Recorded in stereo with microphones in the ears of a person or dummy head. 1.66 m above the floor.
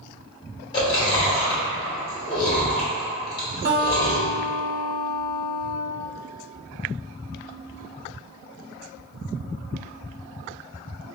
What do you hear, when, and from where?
0.7 s chewing: 20° left (ahead or behind), 1.4 m
3.6 s a guitar: 40° right (ahead or behind), 1.4 m